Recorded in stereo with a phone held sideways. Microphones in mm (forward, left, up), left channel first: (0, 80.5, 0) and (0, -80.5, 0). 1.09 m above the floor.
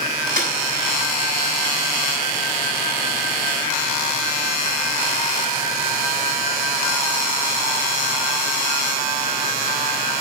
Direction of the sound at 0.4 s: 60° right (ahead or behind).